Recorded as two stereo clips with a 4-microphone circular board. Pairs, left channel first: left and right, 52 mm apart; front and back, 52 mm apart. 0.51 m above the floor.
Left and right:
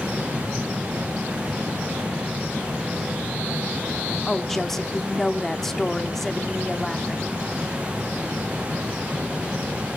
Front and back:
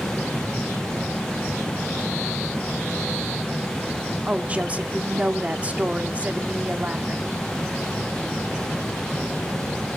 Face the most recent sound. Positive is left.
turn(degrees=170)